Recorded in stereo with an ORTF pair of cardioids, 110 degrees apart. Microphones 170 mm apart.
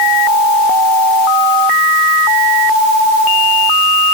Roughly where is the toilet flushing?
I don't hear a toilet flushing.